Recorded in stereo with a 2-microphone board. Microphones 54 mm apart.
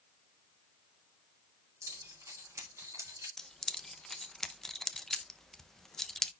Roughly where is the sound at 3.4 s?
Centre.